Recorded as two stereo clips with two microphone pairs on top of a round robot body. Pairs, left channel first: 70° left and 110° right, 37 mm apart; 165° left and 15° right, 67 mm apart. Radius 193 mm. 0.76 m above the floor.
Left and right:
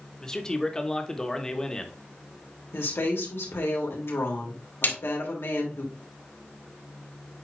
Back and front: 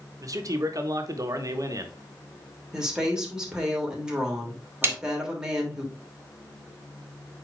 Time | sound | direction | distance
0.2 | a man speaking | straight ahead | 1.6 m
2.7 | a woman speaking | 65° left | 3 m
4.8 | a snare drum | 40° left | 2.5 m